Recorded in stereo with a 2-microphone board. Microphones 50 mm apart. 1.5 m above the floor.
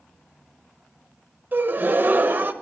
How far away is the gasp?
About 0.7 m.